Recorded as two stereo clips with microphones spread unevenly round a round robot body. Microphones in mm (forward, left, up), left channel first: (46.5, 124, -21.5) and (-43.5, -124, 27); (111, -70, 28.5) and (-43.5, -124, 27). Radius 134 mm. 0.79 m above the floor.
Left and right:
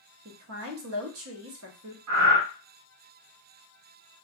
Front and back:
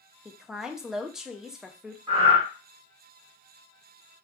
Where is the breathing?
110° right, 1.3 m.